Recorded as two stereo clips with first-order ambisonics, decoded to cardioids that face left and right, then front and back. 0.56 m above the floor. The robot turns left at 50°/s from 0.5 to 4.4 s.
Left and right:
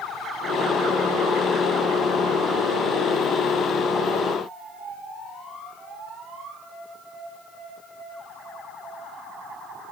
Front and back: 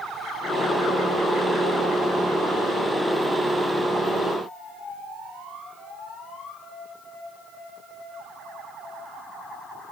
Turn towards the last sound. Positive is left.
No sound to turn to.